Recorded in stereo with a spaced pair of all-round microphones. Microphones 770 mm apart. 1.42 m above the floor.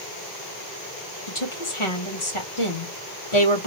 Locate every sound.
1.3 s a woman speaking: 40° left (ahead or behind), 1.5 m